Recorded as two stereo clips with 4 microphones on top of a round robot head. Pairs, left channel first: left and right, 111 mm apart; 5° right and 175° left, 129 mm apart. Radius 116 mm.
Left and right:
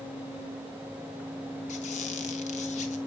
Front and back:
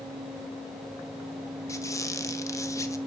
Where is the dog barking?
I don't hear a dog barking.